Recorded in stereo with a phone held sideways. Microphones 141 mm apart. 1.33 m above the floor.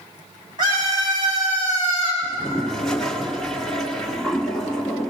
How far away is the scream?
About 8 m.